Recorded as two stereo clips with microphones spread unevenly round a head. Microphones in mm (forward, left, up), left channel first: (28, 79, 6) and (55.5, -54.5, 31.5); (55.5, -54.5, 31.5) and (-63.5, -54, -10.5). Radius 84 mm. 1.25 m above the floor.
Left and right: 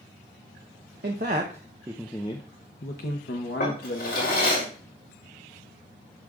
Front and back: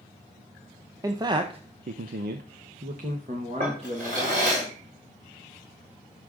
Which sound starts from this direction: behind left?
A drawer, at 3.6 s.